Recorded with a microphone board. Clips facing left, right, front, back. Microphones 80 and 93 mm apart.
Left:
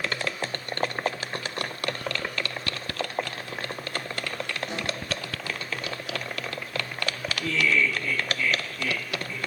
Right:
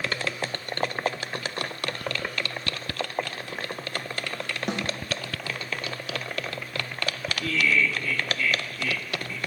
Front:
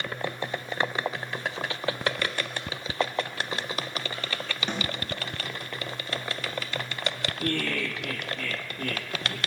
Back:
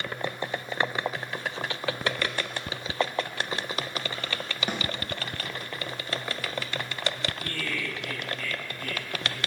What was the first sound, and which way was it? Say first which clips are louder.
A snare drum: right 3 dB, even; 100° right.